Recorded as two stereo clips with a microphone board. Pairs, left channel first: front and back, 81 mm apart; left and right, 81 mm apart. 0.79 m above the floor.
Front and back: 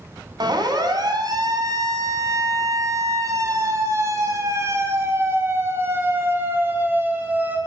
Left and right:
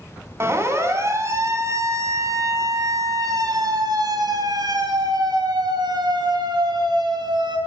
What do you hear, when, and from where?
0.4 s a siren: 150° right, 5.5 m; by 7.6 s 110° right, 6 m